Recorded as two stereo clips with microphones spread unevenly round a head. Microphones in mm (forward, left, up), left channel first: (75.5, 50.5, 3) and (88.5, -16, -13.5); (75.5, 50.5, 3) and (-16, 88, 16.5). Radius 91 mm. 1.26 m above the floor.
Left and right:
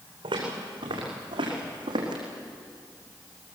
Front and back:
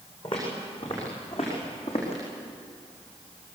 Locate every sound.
0.2 s footsteps: 90° right, 6 m; by 2.2 s 80° right, 5 m